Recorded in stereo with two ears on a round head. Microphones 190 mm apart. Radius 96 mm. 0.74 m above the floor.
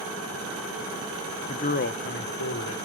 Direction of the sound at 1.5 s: 30° left (ahead or behind).